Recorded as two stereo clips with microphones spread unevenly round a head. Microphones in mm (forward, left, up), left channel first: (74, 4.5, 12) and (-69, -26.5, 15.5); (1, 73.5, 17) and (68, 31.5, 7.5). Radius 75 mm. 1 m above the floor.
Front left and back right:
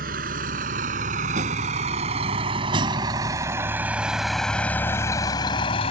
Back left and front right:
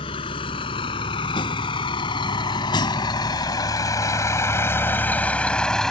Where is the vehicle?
155° left; by 5.9 s 65° left.